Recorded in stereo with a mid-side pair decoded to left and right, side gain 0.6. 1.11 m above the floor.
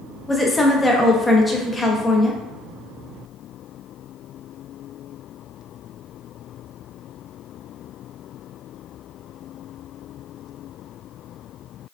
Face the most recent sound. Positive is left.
turn(degrees=10)